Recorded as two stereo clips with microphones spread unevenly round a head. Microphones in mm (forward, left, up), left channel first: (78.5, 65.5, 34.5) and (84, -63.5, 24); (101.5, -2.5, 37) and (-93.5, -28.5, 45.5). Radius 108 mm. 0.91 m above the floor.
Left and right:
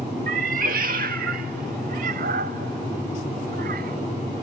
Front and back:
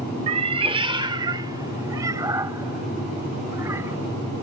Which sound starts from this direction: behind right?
A cat meowing, at 0.3 s.